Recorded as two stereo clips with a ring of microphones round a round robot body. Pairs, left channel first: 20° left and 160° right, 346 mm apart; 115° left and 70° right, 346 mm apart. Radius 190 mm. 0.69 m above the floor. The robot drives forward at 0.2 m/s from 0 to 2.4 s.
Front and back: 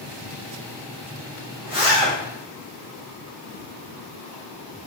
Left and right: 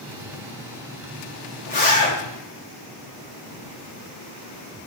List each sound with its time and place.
1.7 s a zipper: 130° left, 1.9 m